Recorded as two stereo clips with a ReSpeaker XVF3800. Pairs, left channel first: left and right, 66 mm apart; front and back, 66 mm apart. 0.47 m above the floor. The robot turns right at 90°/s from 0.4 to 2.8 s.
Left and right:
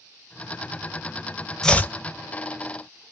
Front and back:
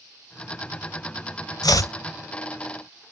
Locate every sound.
1.6 s chopping: 10° left, 0.5 m; by 1.9 s 35° left, 0.5 m